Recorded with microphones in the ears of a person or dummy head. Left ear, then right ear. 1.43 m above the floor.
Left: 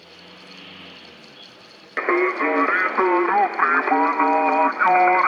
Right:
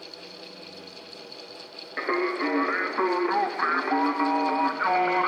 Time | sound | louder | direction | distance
2.0 | singing | left 7 dB | 85° left | 0.5 m